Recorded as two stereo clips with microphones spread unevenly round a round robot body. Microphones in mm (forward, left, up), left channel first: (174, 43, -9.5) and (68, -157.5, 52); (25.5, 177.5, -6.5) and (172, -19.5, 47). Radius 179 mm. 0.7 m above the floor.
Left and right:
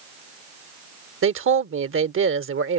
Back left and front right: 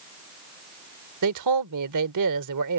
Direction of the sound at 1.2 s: 85° right.